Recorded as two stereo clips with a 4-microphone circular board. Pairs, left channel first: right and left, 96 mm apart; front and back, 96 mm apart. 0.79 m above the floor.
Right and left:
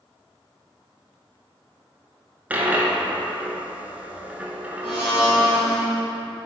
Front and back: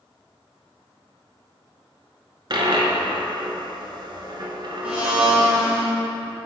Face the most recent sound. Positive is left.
turn(degrees=-105)